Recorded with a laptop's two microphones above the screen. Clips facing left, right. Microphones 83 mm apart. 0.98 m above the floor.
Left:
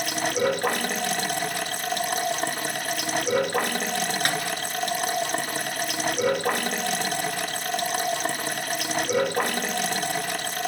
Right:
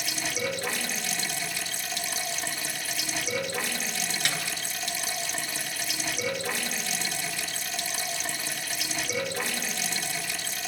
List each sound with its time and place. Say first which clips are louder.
0.0 s running water: left 8 dB; 55° left (ahead or behind), 1.3 m
4.2 s a snare drum: left 4 dB; 45° left (ahead or behind), 4.5 m